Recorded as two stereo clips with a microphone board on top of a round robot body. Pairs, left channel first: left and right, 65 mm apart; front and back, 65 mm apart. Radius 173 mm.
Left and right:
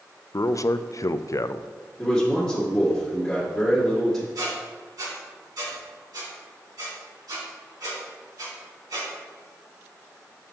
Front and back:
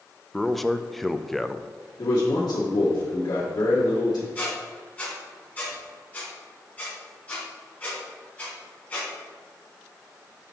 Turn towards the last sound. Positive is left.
turn(degrees=-65)